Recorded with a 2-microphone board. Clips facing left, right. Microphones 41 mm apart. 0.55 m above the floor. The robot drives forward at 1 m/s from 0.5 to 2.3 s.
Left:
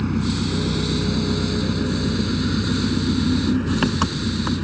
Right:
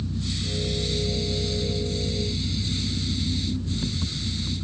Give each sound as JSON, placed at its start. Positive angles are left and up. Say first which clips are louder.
{"t": 0.0, "sound": "an engine running", "louder": "left 9 dB", "side_deg": 80}